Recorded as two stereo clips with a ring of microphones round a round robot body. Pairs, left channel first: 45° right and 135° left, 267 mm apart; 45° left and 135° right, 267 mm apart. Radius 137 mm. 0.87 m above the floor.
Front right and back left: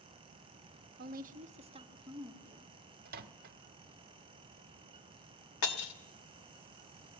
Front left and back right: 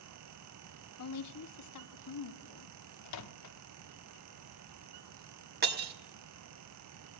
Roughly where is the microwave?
Left.